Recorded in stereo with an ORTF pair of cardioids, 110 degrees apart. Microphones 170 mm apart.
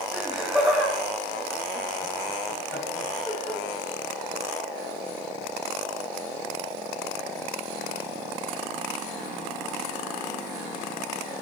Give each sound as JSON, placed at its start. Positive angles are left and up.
{"t": 0.1, "sound": "laughter", "azimuth_deg": -5, "distance_m": 3.5}